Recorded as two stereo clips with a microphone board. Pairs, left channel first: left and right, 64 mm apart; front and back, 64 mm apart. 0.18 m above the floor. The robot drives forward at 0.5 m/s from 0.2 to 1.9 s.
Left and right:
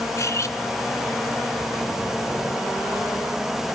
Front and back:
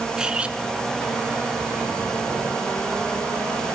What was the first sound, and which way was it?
Cutlery clinking, 105° left.